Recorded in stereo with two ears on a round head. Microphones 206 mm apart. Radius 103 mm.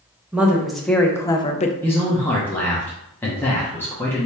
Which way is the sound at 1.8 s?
10° left (ahead or behind).